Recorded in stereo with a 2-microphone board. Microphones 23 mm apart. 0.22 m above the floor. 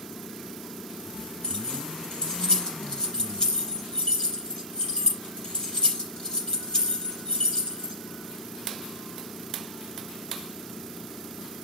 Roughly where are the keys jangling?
Left.